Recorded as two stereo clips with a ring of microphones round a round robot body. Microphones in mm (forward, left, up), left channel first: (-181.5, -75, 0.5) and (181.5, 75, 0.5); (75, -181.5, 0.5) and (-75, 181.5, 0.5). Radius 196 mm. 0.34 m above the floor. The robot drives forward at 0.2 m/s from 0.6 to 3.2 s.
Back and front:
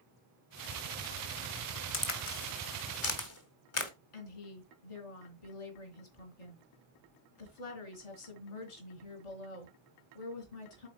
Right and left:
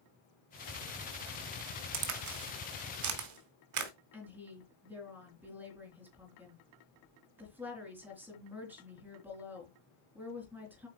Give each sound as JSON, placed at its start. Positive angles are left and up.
{"t": 1.9, "sound": "a crack", "azimuth_deg": 150, "distance_m": 1.7}
{"t": 4.1, "sound": "a woman speaking", "azimuth_deg": -160, "distance_m": 3.5}